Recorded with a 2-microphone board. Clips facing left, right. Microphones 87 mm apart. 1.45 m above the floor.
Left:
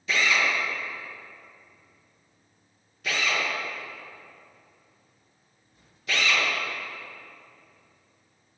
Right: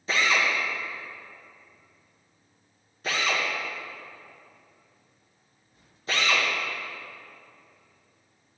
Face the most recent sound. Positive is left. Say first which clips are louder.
# even
turn(degrees=-35)  # may be behind; listen again after turning